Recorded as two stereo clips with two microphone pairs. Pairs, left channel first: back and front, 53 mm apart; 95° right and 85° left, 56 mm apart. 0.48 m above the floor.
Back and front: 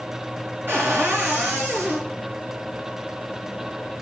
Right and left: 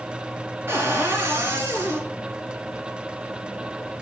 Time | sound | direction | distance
0.7 | a cupboard door | 40° left | 3.5 m